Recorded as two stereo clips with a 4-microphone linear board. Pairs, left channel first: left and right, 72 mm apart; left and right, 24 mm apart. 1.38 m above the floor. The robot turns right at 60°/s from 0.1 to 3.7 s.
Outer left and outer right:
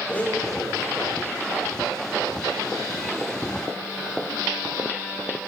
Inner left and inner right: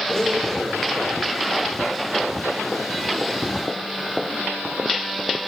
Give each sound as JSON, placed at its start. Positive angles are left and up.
{"t": 0.1, "sound": "a blender", "azimuth_deg": 155, "distance_m": 9.0}